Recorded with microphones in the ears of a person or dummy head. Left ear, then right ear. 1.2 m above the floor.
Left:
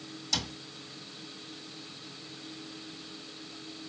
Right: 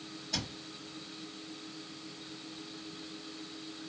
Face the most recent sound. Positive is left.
turn(degrees=65)  # may be behind; listen again after turning